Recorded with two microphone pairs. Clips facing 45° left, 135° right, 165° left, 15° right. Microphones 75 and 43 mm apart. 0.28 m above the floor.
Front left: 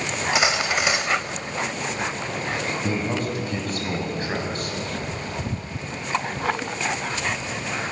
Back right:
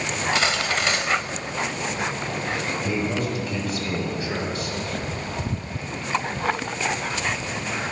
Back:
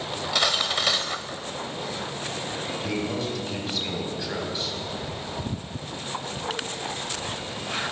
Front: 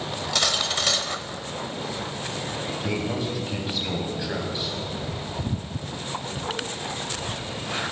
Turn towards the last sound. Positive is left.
turn(degrees=60)